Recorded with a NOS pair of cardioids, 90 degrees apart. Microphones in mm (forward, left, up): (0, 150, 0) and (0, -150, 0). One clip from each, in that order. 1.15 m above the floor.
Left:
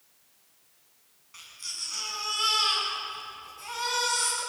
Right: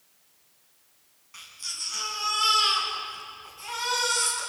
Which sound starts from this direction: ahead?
A baby crying, at 1.3 s.